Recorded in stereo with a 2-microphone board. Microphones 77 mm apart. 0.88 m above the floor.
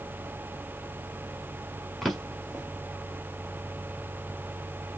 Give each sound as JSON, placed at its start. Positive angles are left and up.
{"t": 2.0, "sound": "a drawer", "side_deg": -5, "distance_m": 1.8}